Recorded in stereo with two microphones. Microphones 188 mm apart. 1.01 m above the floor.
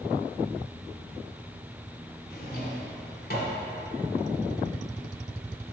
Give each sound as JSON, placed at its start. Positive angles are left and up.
{"t": 2.3, "sound": "a drawer", "side_deg": 55, "distance_m": 1.9}